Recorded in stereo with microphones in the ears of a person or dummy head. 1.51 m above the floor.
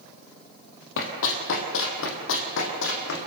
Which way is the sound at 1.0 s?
60° left (ahead or behind).